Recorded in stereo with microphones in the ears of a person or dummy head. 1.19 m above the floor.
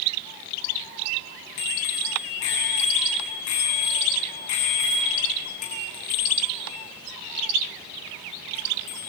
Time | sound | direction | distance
1.6 | a bicycle bell | 65° left (ahead or behind) | 6.5 m